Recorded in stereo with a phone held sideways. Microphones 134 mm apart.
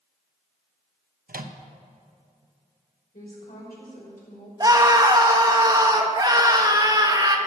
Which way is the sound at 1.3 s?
85° right.